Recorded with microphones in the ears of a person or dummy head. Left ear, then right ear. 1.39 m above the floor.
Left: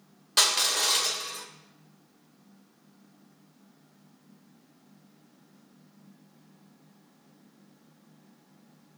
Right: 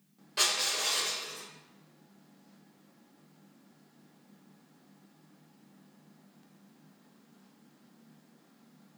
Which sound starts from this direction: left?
Crushing, at 0.4 s.